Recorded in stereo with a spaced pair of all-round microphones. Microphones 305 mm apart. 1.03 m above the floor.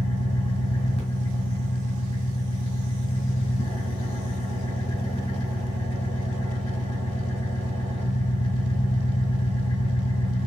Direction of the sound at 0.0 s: 20° left (ahead or behind).